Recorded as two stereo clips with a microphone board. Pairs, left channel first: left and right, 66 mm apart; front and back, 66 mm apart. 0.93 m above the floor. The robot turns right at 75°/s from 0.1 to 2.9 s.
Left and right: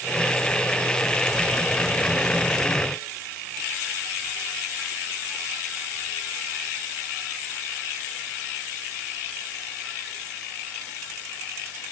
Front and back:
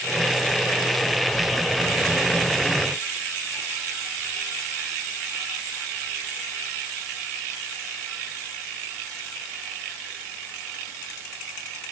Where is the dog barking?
No dog barking in this recording.